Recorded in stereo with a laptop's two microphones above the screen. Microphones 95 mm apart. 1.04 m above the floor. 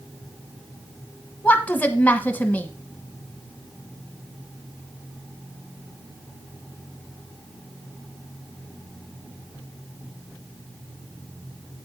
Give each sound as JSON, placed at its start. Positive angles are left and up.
{"t": 1.4, "sound": "a woman speaking", "side_deg": 20, "distance_m": 1.2}